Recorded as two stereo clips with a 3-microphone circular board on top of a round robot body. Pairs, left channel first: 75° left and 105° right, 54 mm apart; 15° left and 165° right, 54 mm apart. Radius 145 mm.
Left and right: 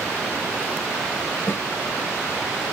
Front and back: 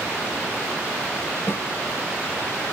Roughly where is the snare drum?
Ahead left.